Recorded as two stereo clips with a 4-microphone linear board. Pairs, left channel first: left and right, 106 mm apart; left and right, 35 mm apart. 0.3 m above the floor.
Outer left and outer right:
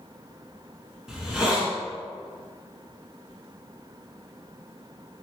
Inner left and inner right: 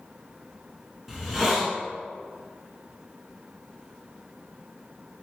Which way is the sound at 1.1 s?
5° right (ahead or behind).